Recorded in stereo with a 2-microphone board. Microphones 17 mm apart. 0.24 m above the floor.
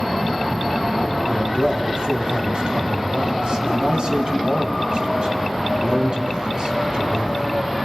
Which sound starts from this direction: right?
A man speaking, at 1.3 s.